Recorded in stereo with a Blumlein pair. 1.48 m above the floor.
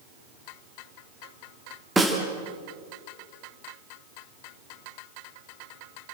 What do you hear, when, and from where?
2.0 s a snare drum: 5° right, 3 m